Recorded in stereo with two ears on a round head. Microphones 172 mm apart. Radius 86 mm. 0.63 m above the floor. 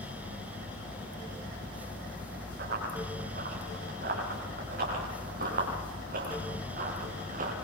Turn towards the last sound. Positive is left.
turn(degrees=-45)  # may be behind; listen again after turning